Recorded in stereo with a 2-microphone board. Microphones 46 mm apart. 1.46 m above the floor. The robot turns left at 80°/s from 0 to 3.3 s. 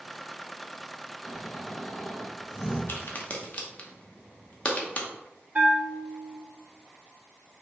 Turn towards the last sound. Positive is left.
turn(degrees=-35)  # may be behind; listen again after turning